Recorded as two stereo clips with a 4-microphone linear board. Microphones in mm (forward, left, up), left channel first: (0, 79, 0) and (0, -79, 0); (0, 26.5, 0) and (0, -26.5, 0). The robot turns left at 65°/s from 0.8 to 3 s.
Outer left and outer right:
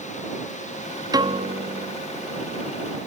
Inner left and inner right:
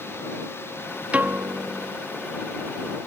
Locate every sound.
1.1 s a piano: 25° right; by 1.9 s 75° right